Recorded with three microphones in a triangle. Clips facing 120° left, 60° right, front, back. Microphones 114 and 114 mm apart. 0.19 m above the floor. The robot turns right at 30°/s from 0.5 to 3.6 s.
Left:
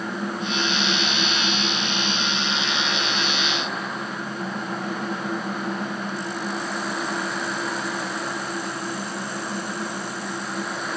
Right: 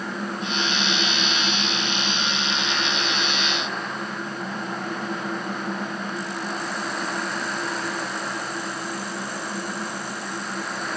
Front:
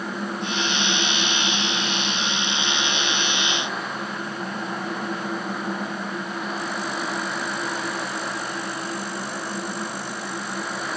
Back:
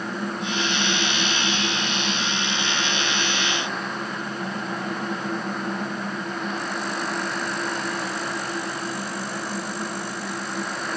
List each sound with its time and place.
Only background noise.